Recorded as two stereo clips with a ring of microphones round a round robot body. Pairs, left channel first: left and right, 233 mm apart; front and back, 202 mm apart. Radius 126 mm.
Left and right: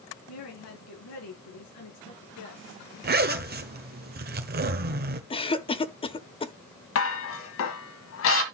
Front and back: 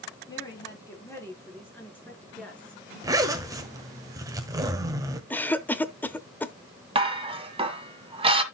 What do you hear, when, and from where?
0.3 s a woman speaking: 70° left, 3.5 m; by 2.8 s 85° left, 4 m
3.0 s a zipper: 115° right, 1.1 m
5.3 s a cough: 70° left, 0.9 m
7.0 s dishes clattering: 115° left, 1.6 m